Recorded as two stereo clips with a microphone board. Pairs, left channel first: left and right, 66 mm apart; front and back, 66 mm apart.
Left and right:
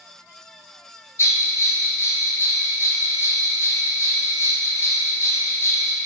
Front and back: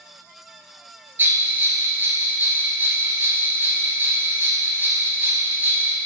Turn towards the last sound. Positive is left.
turn(degrees=125)